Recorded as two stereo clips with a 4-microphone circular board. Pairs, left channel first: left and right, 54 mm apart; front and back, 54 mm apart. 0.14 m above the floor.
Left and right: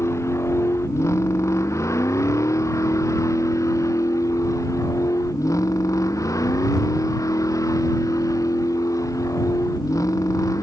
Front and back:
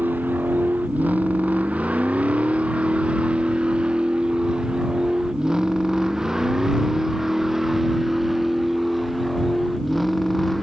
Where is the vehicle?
125° left; by 10.6 s 85° left.